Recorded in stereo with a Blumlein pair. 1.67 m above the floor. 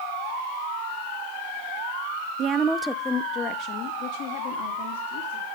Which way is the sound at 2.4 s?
35° right.